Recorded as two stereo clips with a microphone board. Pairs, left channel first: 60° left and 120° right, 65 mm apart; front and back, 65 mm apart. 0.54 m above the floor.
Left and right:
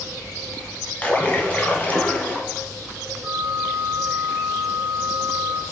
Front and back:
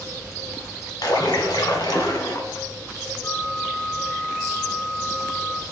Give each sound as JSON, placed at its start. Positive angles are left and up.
{"t": 1.0, "sound": "a splash", "azimuth_deg": -5, "distance_m": 1.8}
{"t": 3.2, "sound": "a flute", "azimuth_deg": -50, "distance_m": 2.0}